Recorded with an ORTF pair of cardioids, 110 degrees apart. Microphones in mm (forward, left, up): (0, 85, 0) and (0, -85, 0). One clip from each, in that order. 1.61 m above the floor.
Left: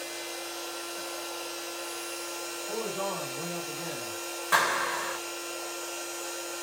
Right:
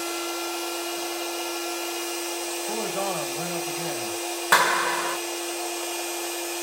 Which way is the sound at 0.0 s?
70° right.